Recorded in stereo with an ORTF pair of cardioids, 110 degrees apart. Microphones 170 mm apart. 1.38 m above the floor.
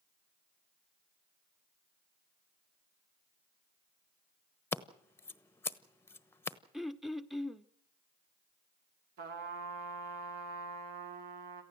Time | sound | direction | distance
4.7 | scissors | 15° left | 1.0 m
6.7 | throat clearing | straight ahead | 0.8 m
9.2 | a trumpet | 60° right | 3.5 m